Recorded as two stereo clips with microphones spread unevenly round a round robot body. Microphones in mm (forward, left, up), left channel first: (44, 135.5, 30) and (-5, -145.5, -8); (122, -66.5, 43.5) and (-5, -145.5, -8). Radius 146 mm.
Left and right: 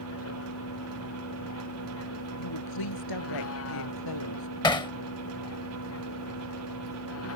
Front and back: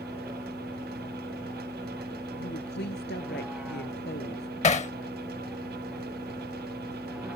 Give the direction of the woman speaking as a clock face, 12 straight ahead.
9 o'clock.